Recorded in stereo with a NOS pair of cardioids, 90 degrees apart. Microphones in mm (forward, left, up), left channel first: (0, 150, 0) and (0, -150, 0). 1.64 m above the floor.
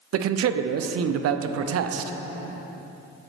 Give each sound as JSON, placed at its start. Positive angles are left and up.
{"t": 0.1, "sound": "a man speaking", "azimuth_deg": -55, "distance_m": 0.6}